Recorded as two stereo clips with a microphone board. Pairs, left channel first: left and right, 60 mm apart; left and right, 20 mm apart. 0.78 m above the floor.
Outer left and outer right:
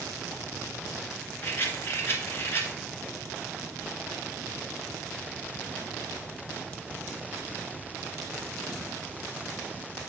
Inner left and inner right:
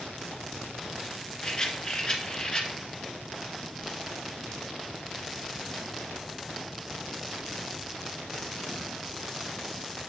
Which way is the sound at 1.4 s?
45° left (ahead or behind).